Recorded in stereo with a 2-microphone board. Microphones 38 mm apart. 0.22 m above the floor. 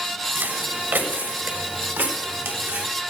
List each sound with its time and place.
0.3 s footsteps: 65° right (ahead or behind), 4 m; by 2.9 s 80° right, 6.5 m